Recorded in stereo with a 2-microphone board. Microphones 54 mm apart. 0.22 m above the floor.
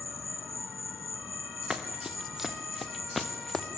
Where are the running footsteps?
15° right (ahead or behind), 3 m; by 3.7 s 5° left (ahead or behind), 2.0 m.